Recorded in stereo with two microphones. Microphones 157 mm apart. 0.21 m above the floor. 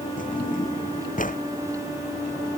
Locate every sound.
0.2 s a drawer: 60° left (ahead or behind)